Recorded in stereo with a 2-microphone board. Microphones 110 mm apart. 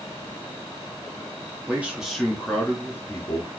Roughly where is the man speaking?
Centre.